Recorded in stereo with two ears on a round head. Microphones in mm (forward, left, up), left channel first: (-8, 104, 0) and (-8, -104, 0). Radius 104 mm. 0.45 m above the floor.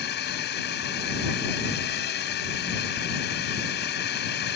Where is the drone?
45° left (ahead or behind).